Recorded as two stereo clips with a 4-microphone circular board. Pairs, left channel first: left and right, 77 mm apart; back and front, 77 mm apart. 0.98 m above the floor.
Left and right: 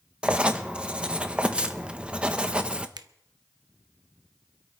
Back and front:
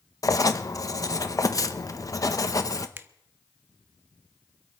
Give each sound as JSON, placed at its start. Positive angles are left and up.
{"t": 0.2, "sound": "writing", "azimuth_deg": -165, "distance_m": 0.9}
{"t": 3.0, "sound": "a finger snap", "azimuth_deg": -60, "distance_m": 0.7}